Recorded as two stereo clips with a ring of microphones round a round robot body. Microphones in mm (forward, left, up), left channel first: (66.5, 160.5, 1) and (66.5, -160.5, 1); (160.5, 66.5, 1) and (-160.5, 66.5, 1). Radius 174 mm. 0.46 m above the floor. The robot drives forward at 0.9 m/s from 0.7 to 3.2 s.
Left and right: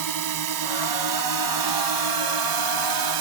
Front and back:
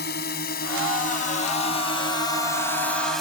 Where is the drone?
65° right; by 3.2 s 90° right.